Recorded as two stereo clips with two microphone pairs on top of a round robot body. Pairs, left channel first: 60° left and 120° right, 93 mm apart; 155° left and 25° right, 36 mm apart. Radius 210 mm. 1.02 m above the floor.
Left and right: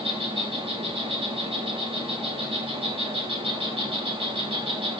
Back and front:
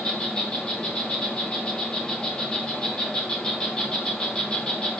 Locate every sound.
0.0 s an insect: 140° right, 4 m